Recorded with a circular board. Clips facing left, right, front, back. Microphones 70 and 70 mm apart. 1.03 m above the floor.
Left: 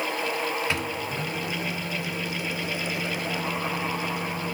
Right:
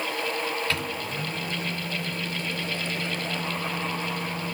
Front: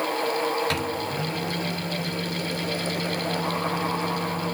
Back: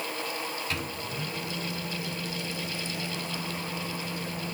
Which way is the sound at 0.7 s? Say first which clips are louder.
Left 1 dB, front 8 dB; 20° left.